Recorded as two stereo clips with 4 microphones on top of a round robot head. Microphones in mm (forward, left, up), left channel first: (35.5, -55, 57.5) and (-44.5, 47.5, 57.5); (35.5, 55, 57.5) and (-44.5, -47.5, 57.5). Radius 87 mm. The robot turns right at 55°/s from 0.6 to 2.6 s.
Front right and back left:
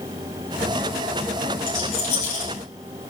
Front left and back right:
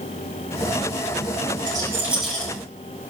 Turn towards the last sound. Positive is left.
turn(degrees=-20)